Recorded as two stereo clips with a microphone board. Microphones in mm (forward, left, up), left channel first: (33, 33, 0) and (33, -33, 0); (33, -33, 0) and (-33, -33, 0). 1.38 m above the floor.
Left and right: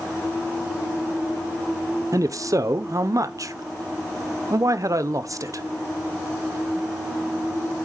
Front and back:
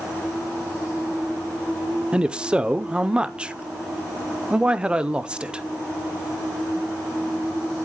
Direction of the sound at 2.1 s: 105° right.